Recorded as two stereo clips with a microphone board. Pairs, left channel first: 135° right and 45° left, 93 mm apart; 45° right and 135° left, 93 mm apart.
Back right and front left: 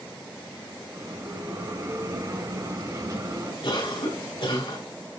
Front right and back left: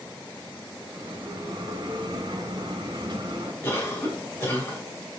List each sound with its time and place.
0.9 s a bell: 95° left, 3 m
3.6 s a cough: 110° right, 4.5 m